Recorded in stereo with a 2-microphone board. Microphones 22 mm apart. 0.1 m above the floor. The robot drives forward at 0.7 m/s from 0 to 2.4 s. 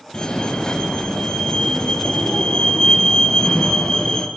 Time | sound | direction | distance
0.1 | a fire alarm | 40° left (ahead or behind) | 2.5 m